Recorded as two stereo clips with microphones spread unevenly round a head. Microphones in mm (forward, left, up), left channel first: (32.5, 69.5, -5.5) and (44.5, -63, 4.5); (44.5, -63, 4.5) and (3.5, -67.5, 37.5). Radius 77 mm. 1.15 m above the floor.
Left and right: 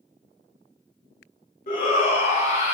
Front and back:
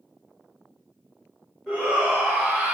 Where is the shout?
75° left, 2.5 m; by 2.8 s 65° left, 3.5 m.